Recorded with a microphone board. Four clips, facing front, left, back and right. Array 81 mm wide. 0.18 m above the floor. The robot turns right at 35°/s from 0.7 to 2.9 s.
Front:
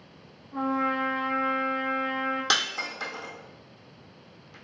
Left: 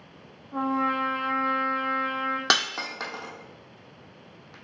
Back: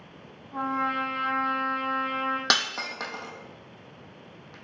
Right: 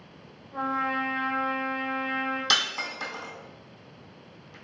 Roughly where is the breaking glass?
Behind left.